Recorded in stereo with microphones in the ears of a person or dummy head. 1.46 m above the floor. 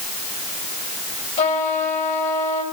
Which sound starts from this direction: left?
A trumpet, at 1.4 s.